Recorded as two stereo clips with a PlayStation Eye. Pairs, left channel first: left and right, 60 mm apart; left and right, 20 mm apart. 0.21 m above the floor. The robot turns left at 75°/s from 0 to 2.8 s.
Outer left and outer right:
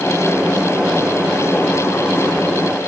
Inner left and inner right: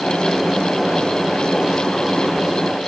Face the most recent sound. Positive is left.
No sound to turn to.